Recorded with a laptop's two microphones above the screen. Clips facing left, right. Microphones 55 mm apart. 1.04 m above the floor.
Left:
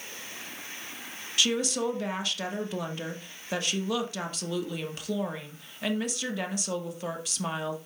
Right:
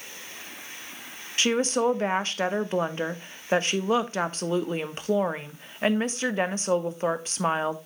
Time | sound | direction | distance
1.4 | a woman speaking | 40° right (ahead or behind) | 1.2 m